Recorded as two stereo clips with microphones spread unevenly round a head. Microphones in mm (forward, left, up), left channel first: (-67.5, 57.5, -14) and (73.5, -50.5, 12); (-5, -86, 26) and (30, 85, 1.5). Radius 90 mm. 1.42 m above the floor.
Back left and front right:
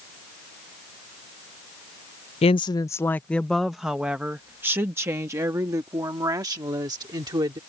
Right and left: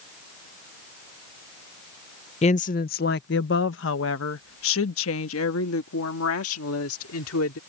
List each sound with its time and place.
2.4 s a woman speaking: 155° right; by 7.6 s 105° right